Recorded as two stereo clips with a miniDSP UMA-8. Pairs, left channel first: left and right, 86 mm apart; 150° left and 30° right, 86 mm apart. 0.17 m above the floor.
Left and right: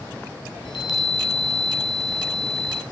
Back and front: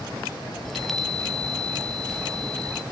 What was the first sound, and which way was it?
A chime, 60° left.